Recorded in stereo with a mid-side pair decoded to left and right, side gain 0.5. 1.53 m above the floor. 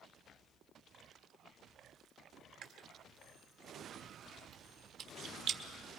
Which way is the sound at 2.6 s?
65° right.